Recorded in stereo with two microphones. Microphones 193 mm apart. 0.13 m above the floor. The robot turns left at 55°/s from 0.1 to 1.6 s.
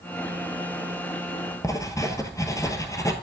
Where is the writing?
15° left (ahead or behind), 1.0 m.